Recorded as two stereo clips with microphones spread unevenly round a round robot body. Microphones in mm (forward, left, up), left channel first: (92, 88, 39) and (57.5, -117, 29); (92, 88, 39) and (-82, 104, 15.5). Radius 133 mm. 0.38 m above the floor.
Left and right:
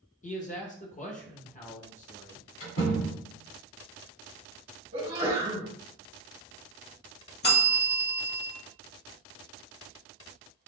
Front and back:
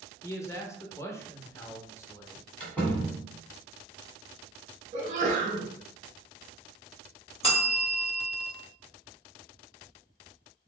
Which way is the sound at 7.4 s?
50° left.